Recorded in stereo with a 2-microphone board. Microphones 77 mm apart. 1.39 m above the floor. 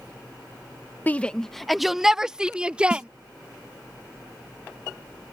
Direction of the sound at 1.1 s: 25° left (ahead or behind).